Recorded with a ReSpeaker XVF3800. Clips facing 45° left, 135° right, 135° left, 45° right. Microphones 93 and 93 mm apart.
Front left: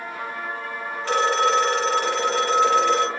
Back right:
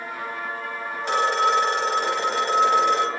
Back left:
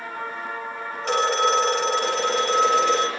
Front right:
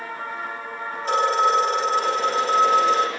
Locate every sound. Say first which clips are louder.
1.0 s a phone ringing: front left 1 dB, front right 1 dB; 155° left, 4 m